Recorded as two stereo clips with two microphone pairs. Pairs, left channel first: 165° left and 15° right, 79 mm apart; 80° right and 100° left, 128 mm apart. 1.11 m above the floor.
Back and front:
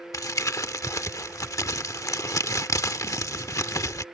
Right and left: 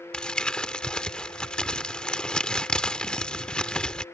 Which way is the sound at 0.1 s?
160° right.